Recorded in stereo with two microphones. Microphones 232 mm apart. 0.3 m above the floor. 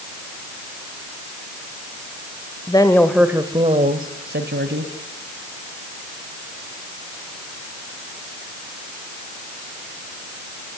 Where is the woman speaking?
20° left (ahead or behind), 1.5 m; by 4.9 s 55° right (ahead or behind), 2.5 m.